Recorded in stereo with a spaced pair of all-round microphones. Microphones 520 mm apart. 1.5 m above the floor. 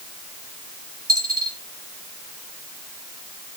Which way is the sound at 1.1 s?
60° right (ahead or behind).